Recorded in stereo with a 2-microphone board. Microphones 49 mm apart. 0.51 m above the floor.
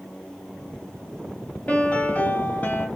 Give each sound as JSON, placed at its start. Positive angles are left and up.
{"t": 1.7, "sound": "a piano", "side_deg": 30, "distance_m": 2.0}